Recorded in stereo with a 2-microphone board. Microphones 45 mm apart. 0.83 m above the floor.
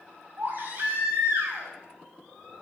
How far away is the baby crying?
About 4.5 m.